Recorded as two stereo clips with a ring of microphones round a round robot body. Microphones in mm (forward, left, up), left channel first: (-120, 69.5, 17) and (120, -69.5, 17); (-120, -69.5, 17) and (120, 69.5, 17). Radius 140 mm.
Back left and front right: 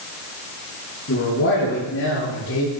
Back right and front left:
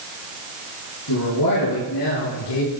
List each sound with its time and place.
1.1 s a man speaking: 160° right, 7.5 m; by 2.7 s 165° right, 8.5 m